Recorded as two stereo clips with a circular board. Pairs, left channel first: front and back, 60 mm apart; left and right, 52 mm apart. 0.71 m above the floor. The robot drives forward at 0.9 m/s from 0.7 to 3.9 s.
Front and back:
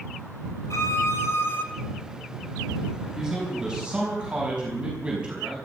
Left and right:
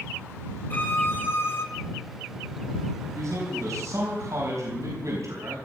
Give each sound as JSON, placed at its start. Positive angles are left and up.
{"t": 0.7, "sound": "a violin", "azimuth_deg": 35, "distance_m": 2.5}
{"t": 3.1, "sound": "a man speaking", "azimuth_deg": -100, "distance_m": 4.5}